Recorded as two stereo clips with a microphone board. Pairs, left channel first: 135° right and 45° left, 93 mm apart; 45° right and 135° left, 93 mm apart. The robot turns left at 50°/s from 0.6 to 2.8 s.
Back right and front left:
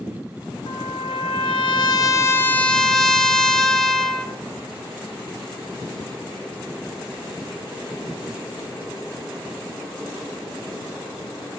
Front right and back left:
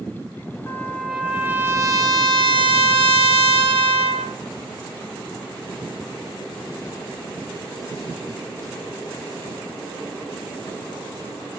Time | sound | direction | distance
0.7 | a trumpet | 110° right | 1.0 m